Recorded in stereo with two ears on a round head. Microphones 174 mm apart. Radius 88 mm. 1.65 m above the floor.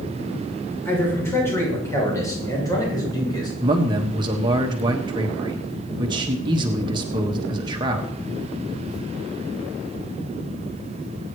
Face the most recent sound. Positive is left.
turn(degrees=-20)  # may be behind; listen again after turning